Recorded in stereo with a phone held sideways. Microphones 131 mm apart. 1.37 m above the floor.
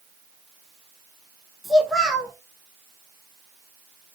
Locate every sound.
1.6 s a child speaking: centre (ahead or behind), 0.8 m